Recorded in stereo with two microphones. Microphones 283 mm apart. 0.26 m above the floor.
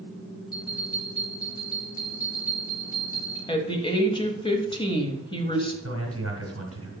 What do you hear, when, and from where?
0.5 s a bell: 30° left (ahead or behind), 3.5 m
3.5 s a woman speaking: 15° left (ahead or behind), 1.0 m
5.8 s a man speaking: 50° right (ahead or behind), 2 m